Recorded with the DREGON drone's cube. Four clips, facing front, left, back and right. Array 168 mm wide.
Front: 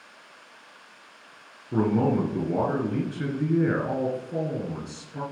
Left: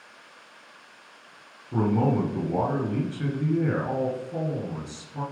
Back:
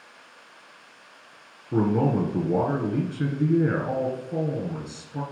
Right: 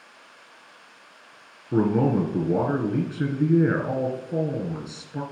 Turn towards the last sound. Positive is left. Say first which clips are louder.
# right 3 dB, even
turn(degrees=-110)